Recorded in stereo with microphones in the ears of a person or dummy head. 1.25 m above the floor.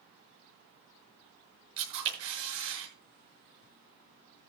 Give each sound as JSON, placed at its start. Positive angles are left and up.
{"t": 1.8, "sound": "a camera shutter", "side_deg": -75, "distance_m": 7.0}